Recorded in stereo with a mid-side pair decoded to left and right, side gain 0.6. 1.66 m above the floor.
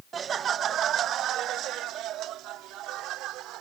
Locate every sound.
0.1 s laughter: 35° right; by 3.6 s 65° right